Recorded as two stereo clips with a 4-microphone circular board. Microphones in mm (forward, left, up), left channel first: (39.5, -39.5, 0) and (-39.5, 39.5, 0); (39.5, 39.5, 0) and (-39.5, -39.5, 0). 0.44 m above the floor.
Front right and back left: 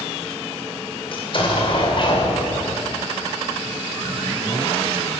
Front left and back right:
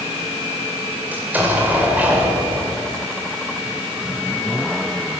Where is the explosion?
65° right, 2 m.